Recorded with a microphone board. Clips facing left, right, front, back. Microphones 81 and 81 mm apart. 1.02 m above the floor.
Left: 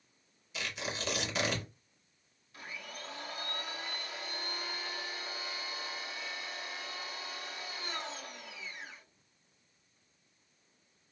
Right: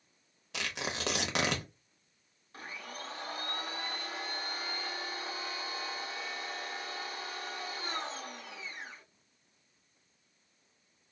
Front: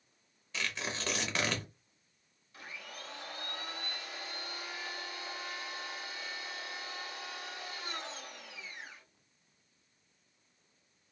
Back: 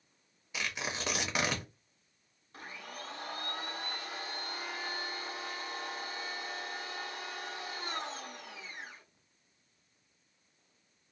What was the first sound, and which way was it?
Tearing paper, 105° right.